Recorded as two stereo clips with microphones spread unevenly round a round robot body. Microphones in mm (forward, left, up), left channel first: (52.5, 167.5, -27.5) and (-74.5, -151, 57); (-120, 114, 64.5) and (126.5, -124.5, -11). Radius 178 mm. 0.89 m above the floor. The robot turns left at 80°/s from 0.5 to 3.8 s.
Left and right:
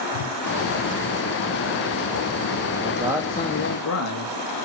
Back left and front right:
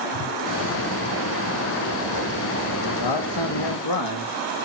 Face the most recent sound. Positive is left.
turn(degrees=105)